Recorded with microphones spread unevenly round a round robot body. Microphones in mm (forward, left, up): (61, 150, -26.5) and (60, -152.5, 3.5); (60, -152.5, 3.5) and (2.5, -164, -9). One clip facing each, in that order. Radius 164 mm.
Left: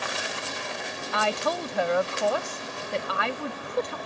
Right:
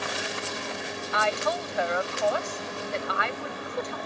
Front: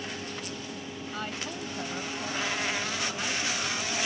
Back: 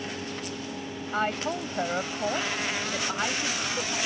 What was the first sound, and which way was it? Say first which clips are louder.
A woman speaking: left 1 dB, back 10 dB; 140° left.